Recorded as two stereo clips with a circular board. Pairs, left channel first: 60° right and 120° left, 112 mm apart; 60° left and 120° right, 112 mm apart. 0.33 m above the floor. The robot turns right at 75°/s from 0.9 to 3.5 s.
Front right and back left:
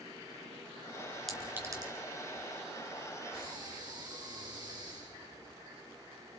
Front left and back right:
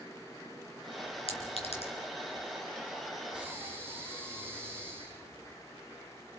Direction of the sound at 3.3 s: 155° left.